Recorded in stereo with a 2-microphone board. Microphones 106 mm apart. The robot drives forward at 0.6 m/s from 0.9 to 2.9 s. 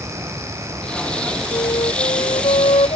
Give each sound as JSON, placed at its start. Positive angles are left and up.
{"t": 1.5, "sound": "a flute", "side_deg": 60}